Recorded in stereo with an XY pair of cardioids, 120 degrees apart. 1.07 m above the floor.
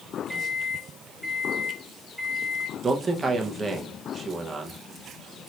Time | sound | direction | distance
0.3 | a microwave | straight ahead | 0.7 m
2.8 | a man speaking | 25° right | 0.8 m